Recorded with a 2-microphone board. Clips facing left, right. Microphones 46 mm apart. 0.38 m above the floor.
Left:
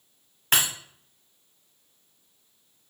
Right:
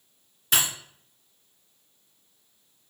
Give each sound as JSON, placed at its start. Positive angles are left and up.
{"t": 0.5, "sound": "breaking glass", "side_deg": 55, "distance_m": 1.3}